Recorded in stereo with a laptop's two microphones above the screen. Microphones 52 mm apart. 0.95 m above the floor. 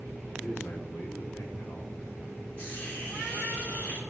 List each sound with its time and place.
0.3 s a man speaking: 60° left (ahead or behind), 1.9 m
2.6 s a hiss: 40° left (ahead or behind), 4 m